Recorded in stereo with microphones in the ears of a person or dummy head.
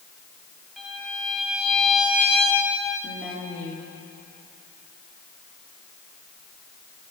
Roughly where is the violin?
Centre.